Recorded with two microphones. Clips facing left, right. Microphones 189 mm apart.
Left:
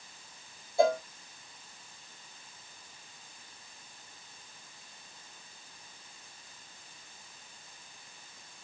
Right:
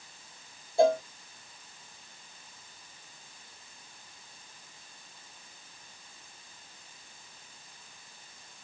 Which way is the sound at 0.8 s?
30° right (ahead or behind).